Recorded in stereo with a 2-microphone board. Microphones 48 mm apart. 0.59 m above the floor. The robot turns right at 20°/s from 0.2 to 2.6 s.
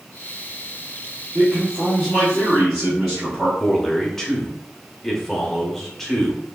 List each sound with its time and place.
1.4 s a man speaking: 15° right (ahead or behind), 0.9 m; by 3.5 s centre (ahead or behind), 0.9 m
3.6 s a man speaking: 10° left (ahead or behind), 0.7 m